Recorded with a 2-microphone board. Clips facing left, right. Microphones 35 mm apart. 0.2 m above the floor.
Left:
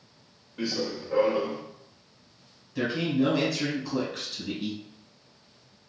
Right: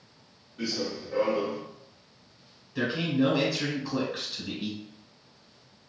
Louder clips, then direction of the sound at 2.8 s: Even; 10° right (ahead or behind).